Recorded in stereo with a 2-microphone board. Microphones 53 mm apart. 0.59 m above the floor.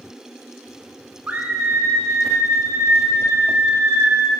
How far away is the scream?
About 0.6 m.